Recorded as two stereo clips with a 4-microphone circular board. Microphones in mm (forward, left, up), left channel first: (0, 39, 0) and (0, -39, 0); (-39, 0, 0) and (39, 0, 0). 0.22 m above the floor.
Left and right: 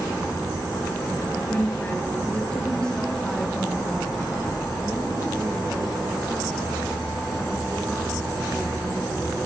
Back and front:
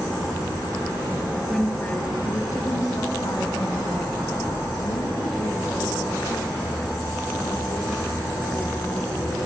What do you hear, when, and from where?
1.5 s a woman speaking: 100° left, 1.2 m; by 9.4 s straight behind, 8 m